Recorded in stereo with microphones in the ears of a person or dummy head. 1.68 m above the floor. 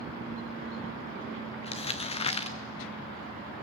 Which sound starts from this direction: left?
Crumpling, at 1.6 s.